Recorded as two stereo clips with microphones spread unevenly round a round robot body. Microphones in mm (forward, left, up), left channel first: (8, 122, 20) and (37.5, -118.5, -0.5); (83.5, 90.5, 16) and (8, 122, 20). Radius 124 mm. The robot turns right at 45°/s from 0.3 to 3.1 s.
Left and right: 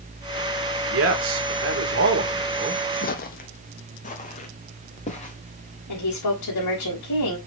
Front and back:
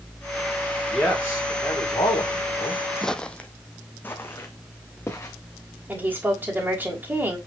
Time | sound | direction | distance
0.9 | a man speaking | 100° right | 2 m
3.0 | footsteps | 60° left | 0.9 m
5.9 | a woman speaking | 90° left | 3.5 m